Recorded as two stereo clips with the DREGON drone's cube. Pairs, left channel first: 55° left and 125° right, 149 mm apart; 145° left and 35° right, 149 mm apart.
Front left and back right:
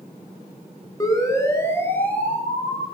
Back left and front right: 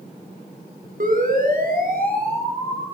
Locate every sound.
1.0 s a siren: 10° right, 5 m; by 2.9 s 30° right, 6 m